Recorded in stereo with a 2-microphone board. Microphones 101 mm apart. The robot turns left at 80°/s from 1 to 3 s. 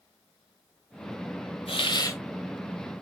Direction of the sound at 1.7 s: 70° left.